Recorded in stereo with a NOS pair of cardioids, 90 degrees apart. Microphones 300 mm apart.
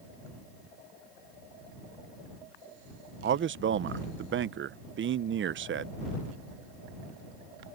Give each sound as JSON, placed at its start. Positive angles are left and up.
{"t": 3.2, "sound": "a man speaking", "azimuth_deg": -40}